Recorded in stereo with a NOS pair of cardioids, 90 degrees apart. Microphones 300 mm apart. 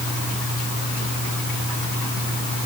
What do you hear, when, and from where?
Only background noise.